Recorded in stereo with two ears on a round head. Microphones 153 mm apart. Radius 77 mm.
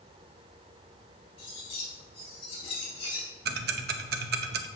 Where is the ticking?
65° right (ahead or behind), 0.9 m.